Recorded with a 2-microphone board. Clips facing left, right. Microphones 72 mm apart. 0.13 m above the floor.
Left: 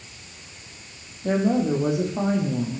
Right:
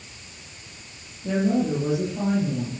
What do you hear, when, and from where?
1.2 s a woman speaking: 60° left (ahead or behind), 6 m